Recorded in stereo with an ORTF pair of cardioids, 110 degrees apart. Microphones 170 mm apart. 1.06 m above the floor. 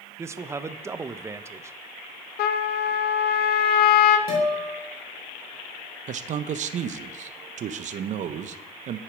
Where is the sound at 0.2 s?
15° right, 0.5 m.